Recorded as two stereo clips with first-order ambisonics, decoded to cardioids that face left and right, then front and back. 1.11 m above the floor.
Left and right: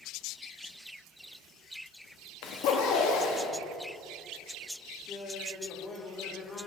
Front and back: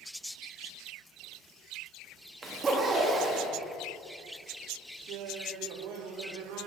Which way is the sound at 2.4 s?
110° left.